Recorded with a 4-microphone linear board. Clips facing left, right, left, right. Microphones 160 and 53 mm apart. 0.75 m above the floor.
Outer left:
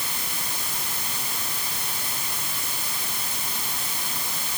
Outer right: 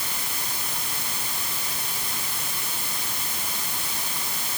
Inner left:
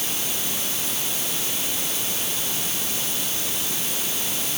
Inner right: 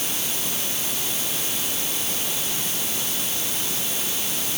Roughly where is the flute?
I don't hear a flute.